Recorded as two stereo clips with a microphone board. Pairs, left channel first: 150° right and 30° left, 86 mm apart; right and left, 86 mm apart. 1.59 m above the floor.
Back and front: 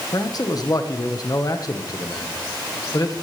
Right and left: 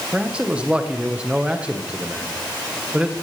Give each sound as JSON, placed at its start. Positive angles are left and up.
{"t": 0.1, "sound": "a man speaking", "azimuth_deg": 170, "distance_m": 1.3}